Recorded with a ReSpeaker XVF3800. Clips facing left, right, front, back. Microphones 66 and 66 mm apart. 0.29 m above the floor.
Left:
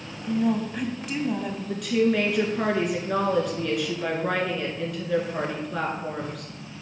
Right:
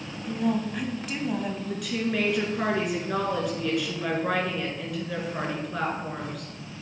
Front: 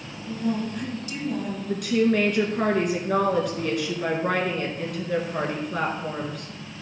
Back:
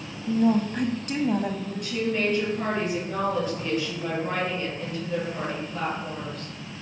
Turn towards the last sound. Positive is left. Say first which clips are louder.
# left 9 dB, front 6 dB
turn(degrees=0)